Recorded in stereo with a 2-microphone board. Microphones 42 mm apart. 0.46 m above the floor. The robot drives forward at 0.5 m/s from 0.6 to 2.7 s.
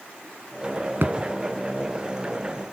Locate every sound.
1.0 s a thud: 60° right (ahead or behind), 1.7 m